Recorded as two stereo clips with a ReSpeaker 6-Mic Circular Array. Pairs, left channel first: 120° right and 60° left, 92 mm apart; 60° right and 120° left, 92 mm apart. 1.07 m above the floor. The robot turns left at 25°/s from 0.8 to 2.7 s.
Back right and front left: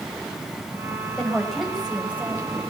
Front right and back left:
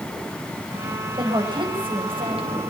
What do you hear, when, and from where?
1.2 s a woman speaking: 160° left, 6.5 m; by 2.5 s 125° left, 6.5 m